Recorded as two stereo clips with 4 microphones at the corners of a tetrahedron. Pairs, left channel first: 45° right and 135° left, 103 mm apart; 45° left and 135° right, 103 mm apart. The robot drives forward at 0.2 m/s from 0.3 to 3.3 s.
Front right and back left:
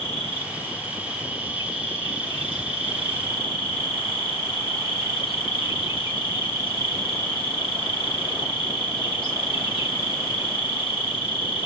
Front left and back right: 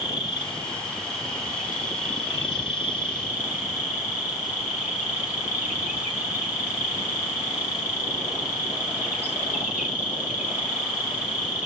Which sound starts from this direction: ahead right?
An insect, at 0.0 s.